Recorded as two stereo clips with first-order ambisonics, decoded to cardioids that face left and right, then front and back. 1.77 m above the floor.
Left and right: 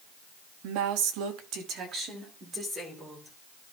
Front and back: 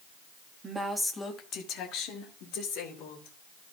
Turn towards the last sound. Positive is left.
turn(degrees=-15)